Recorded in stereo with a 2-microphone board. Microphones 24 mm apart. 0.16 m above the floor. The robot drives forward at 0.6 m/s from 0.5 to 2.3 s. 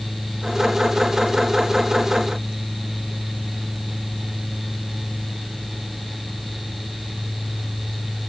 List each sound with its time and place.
Only background noise.